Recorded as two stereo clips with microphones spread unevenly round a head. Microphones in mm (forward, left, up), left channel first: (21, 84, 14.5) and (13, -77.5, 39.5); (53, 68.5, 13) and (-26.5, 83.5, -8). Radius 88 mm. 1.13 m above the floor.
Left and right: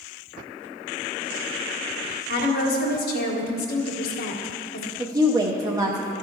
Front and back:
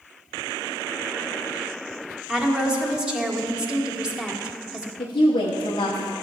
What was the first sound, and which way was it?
A woman speaking, 95° left.